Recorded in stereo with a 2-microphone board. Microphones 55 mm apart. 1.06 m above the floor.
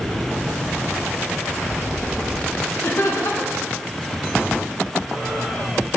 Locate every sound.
2.8 s laughter: 60° left (ahead or behind), 1.1 m